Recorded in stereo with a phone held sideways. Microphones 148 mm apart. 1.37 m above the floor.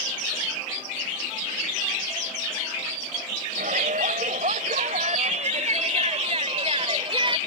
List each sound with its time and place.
3.6 s a shout: 65° right (ahead or behind); by 7.4 s 35° right (ahead or behind)